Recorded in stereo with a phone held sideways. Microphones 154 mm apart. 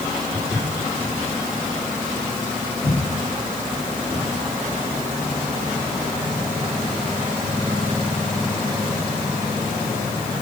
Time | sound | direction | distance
0.3 | footsteps | 15° left (ahead or behind) | 4 m